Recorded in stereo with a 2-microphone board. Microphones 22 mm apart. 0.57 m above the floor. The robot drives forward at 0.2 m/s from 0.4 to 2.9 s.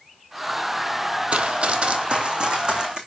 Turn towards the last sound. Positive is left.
turn(degrees=-45)  # may be behind; listen again after turning